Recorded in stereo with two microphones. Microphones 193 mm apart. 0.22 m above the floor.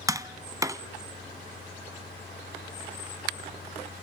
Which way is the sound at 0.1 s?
15° right (ahead or behind).